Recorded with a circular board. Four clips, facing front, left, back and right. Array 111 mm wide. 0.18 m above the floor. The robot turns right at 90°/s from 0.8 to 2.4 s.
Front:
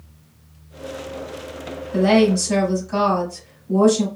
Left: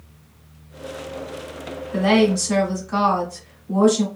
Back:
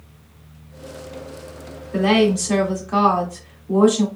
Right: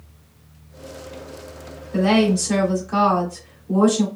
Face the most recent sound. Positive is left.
turn(degrees=180)